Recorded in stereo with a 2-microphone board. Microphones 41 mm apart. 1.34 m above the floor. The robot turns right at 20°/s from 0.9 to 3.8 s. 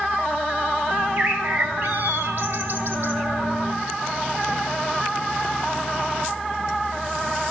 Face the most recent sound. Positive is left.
turn(degrees=-55)